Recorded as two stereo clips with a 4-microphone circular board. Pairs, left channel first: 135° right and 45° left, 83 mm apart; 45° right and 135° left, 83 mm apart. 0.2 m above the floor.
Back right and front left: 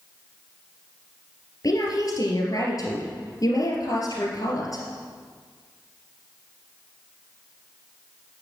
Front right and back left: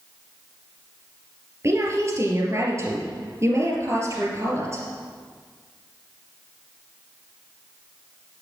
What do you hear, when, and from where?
1.6 s a woman speaking: 175° right, 3 m